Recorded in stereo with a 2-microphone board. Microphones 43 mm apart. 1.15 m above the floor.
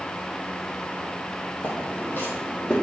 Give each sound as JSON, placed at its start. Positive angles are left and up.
{"t": 1.6, "sound": "footsteps", "side_deg": 60, "distance_m": 2.5}